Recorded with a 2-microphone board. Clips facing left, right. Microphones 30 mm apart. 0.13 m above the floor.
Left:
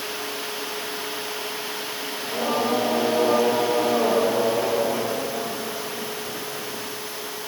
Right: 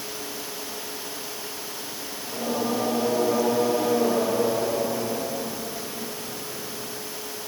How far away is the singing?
About 6 m.